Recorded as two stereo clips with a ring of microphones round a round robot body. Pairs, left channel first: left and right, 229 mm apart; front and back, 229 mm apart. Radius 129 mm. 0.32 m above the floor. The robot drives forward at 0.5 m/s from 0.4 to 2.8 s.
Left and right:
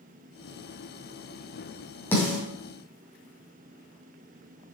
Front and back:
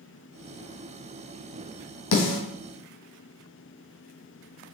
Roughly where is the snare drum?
Ahead.